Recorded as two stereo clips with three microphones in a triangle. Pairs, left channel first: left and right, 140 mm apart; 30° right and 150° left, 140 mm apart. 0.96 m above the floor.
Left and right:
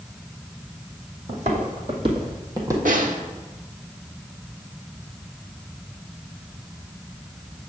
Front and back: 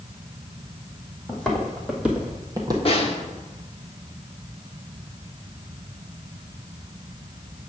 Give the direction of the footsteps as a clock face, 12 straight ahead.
4 o'clock.